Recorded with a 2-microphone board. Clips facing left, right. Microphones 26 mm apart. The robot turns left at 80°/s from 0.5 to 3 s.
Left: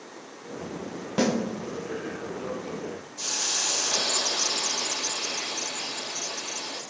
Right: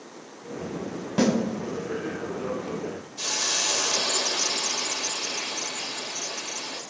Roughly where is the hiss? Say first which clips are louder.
Right 2 dB; right.